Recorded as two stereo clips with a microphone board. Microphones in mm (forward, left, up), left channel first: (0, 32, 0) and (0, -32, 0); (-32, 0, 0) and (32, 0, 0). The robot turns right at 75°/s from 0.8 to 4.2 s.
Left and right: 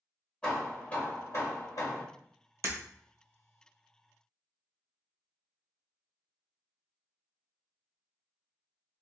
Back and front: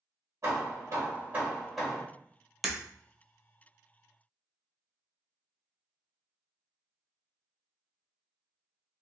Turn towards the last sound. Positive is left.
turn(degrees=35)